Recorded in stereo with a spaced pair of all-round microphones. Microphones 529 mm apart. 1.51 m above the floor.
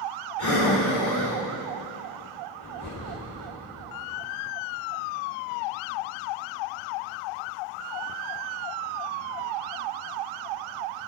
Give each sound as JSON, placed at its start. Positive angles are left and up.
{"t": 0.4, "sound": "breathing", "side_deg": 45, "distance_m": 2.5}